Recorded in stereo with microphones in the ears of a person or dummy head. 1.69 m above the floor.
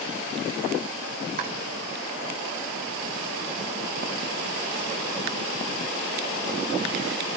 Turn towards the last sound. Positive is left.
turn(degrees=-50)  # may be behind; listen again after turning